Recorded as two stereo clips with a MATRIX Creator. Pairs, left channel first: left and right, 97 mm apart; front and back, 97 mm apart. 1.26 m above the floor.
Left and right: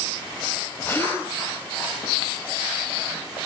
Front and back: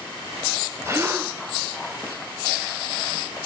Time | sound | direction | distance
0.8 | a gasp | 140° left | 1.2 m